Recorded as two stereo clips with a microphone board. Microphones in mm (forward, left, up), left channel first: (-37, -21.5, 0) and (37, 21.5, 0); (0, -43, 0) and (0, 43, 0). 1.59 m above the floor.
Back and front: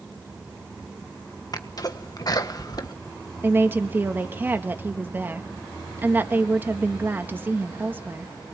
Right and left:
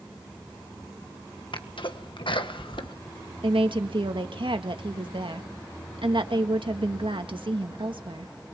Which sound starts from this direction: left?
A woman speaking, at 3.4 s.